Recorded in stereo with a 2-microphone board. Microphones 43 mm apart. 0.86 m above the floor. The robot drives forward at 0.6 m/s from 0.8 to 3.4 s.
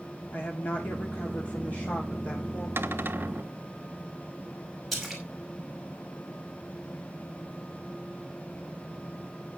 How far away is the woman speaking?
About 2.0 m.